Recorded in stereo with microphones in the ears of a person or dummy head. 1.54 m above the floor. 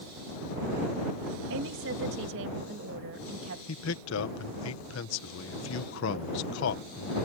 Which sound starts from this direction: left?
A man speaking, at 3.7 s.